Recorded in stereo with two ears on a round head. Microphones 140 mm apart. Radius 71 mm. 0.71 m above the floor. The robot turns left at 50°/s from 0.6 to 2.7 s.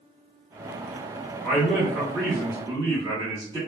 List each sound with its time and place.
1.4 s a man speaking: centre (ahead or behind), 1.1 m; by 3.6 s 25° right (ahead or behind), 1.1 m